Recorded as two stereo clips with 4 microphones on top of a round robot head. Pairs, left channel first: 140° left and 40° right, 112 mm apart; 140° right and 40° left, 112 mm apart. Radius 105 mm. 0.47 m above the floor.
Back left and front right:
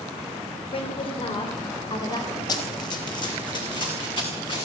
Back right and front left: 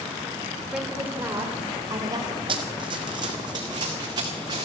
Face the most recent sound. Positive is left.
turn(degrees=95)